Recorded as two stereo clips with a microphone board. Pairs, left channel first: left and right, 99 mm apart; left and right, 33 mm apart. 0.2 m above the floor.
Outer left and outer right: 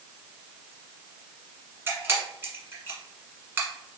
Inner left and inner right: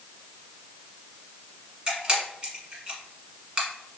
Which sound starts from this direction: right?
A camera shutter, at 1.9 s.